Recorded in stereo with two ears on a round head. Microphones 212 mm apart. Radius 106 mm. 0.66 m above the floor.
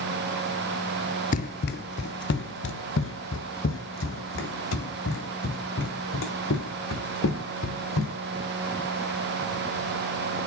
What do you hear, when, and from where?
1.3 s running footsteps: 35° left (ahead or behind), 0.7 m; by 8.1 s 60° left (ahead or behind), 4 m